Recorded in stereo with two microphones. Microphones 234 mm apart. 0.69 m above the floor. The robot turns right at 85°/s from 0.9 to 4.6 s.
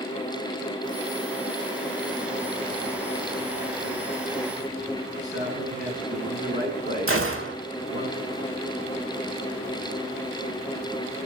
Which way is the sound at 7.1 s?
65° right (ahead or behind).